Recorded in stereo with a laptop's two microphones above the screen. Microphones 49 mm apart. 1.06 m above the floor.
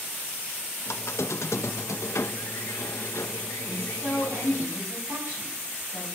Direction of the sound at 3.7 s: 65° right (ahead or behind).